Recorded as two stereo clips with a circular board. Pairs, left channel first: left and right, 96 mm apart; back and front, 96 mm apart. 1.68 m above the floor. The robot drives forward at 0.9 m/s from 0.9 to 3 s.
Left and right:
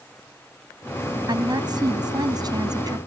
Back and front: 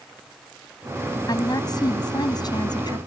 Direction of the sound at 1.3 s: 130° right.